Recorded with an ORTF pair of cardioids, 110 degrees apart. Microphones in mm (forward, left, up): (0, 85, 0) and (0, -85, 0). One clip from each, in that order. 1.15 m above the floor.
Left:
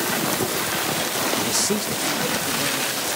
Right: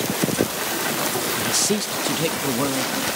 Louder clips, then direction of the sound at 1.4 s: Right 1 dB; 5° left.